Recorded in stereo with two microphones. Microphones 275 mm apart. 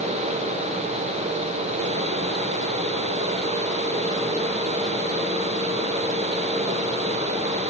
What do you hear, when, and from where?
Only background noise.